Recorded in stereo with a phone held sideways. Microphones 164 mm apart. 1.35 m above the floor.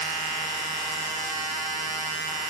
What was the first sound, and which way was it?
Only background noise.